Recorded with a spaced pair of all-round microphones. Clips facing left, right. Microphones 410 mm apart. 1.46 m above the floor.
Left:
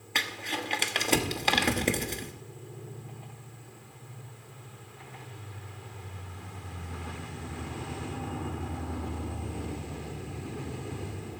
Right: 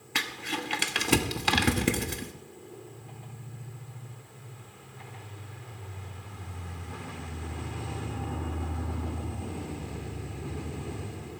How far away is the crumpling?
About 1.1 m.